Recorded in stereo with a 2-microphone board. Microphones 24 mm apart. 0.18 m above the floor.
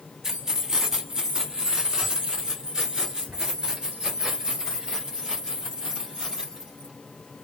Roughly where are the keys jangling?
Centre.